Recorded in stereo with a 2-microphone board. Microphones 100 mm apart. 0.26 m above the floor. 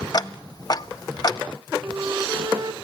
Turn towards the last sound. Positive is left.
turn(degrees=-35)  # may be behind; listen again after turning